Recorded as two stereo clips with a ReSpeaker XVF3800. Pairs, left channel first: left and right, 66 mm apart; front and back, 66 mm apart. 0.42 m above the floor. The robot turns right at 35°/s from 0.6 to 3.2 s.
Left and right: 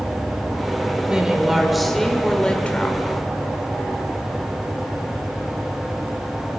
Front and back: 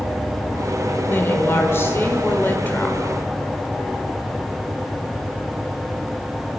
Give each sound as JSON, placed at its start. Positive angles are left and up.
{"t": 1.1, "sound": "a woman speaking", "azimuth_deg": -25, "distance_m": 1.5}